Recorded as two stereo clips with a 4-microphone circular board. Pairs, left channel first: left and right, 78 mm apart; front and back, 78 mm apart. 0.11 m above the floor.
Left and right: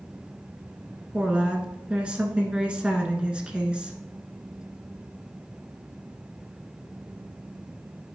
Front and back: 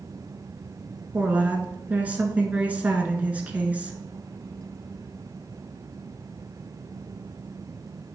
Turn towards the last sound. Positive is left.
turn(degrees=-145)